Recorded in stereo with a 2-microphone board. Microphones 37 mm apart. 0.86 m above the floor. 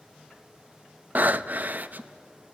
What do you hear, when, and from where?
1.1 s breathing: 50° right (ahead or behind), 0.6 m